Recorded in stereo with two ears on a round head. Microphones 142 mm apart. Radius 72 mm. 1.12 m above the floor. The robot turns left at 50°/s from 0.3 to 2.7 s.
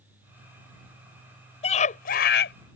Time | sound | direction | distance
1.6 | a scream | 140° left | ?